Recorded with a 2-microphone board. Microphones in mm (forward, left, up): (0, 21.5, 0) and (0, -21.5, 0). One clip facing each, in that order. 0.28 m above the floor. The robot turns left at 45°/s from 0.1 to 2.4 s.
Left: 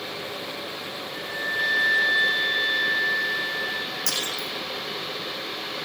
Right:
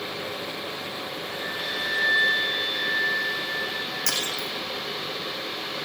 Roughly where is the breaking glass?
Right.